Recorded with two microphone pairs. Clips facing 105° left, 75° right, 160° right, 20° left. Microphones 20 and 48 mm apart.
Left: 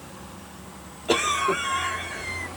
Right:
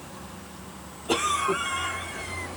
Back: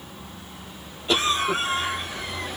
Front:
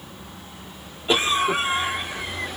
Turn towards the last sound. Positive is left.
turn(degrees=80)